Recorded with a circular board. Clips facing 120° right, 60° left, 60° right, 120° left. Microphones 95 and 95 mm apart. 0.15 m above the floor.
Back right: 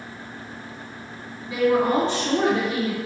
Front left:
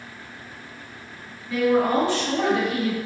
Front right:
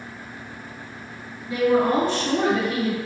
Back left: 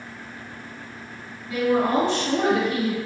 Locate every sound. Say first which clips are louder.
1.5 s a woman speaking: even, front right 2 dB; 75° right, 1.7 m; by 3.0 s 90° right, 2 m